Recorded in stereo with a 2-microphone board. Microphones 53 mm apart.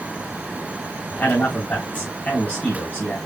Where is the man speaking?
30° left (ahead or behind), 3.5 m.